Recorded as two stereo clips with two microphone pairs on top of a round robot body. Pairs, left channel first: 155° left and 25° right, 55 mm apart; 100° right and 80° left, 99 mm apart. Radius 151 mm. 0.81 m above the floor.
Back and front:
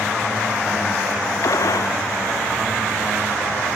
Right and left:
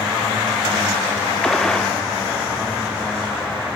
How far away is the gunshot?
About 1.0 m.